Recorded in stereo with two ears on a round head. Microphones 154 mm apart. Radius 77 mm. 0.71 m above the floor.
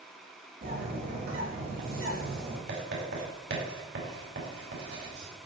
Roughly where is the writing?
Right.